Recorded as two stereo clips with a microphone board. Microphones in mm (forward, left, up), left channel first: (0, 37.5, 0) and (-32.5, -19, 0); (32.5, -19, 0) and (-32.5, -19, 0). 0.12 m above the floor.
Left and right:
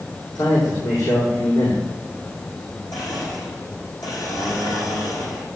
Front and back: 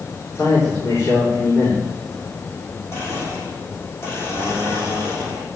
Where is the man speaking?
45° left, 8.5 m.